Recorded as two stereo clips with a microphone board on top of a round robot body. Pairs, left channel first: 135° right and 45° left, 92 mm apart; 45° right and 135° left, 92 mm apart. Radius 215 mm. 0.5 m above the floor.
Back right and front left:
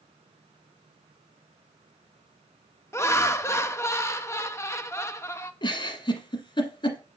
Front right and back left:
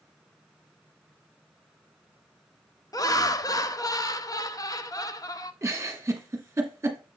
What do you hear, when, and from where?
2.9 s laughter: 80° right, 1.0 m
5.6 s a giggle: 165° right, 1.4 m